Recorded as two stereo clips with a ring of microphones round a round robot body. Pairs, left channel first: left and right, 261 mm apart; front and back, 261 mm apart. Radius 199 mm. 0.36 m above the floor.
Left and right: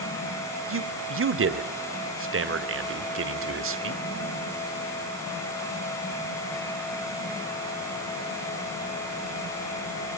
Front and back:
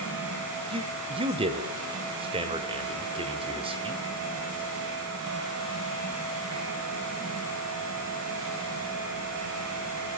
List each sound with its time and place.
0.7 s a man speaking: 110° right, 2 m